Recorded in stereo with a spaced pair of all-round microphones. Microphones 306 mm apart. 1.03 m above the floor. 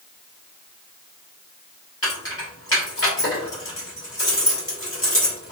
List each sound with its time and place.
2.0 s keys jangling: 45° left (ahead or behind), 1.5 m